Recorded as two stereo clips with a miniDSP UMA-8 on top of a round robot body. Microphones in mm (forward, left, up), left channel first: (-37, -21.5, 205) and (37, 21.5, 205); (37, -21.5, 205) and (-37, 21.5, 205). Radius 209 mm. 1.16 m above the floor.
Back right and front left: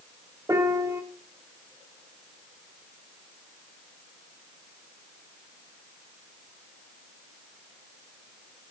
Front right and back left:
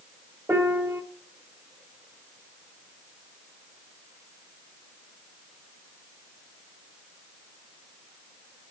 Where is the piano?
85° left, 1.4 m.